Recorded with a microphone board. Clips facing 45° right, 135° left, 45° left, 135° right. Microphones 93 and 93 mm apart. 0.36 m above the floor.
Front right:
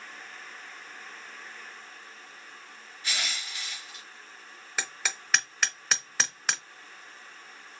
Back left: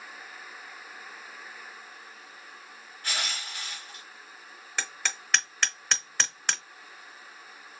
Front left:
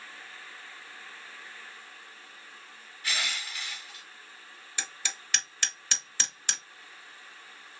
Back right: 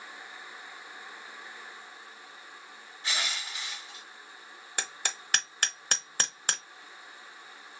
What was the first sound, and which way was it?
Crushing, 165° left.